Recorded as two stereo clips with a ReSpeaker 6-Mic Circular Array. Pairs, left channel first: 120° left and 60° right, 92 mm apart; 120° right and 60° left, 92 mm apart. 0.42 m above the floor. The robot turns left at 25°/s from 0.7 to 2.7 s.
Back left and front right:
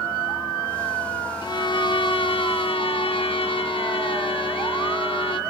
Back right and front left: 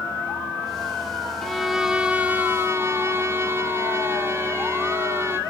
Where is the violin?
155° left, 0.8 m; by 5.4 s 125° left, 0.8 m.